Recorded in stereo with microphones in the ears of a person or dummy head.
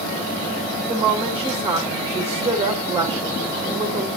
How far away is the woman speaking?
About 1.4 m.